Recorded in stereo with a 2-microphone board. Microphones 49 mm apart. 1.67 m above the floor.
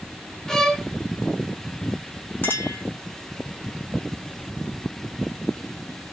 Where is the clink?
45° left (ahead or behind), 1.1 m.